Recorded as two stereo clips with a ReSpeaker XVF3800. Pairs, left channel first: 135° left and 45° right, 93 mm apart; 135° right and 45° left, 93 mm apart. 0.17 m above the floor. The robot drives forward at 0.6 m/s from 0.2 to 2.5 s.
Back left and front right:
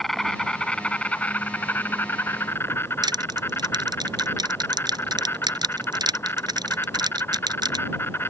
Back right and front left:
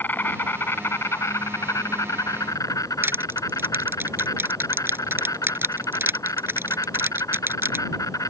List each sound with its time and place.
0.0 s an insect: 145° right; by 8.3 s 170° right
3.0 s crushing: 15° right